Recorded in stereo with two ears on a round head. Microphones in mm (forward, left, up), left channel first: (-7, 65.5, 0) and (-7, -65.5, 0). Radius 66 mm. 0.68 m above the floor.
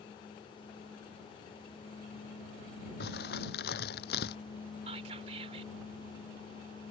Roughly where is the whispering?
Right.